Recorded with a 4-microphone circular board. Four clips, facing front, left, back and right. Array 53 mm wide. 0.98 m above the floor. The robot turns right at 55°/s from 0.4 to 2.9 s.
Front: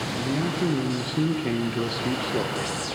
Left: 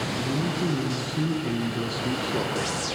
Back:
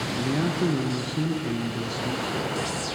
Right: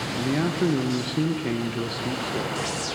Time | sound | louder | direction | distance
0.2 | a man speaking | right 6 dB, back 1 dB | 100° right | 0.8 m